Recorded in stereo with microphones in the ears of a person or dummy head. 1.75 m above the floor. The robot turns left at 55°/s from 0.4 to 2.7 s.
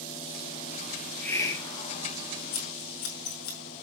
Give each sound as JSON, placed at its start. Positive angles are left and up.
{"t": 1.0, "sound": "a hiss", "azimuth_deg": -175, "distance_m": 2.0}
{"t": 2.5, "sound": "scissors", "side_deg": 55, "distance_m": 4.0}